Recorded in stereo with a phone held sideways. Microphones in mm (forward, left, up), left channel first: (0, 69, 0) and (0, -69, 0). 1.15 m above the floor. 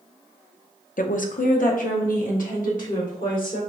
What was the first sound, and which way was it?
A woman speaking, 75° left (ahead or behind).